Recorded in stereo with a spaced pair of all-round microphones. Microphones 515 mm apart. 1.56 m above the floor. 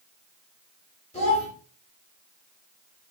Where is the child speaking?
15° left (ahead or behind), 4 m.